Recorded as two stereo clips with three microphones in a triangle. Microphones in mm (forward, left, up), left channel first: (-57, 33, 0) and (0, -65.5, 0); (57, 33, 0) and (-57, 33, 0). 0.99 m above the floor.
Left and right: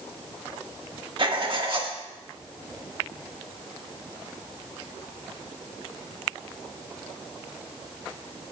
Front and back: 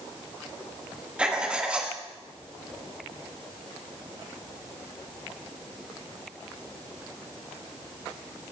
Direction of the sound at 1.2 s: 100° right.